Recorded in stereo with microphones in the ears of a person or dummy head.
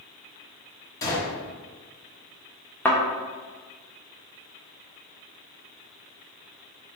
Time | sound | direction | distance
1.0 | a gunshot | 20° left (ahead or behind) | 0.7 m
2.9 | a thud | 10° left (ahead or behind) | 0.5 m